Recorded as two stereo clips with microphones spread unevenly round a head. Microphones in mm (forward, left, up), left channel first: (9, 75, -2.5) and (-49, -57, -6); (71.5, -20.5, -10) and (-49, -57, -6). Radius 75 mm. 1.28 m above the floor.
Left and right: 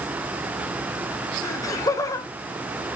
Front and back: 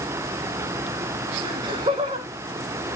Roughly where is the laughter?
Behind left.